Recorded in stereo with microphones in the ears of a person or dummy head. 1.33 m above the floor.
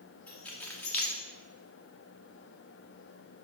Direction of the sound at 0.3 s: 10° left (ahead or behind).